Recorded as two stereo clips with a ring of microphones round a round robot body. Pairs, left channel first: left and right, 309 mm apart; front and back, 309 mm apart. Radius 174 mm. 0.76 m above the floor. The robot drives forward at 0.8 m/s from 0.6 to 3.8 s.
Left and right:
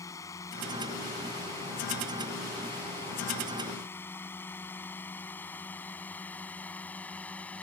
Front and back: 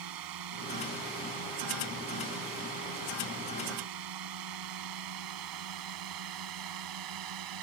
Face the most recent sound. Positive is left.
turn(degrees=175)